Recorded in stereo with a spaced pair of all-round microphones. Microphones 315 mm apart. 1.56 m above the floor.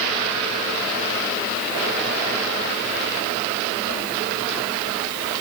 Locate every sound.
Only background noise.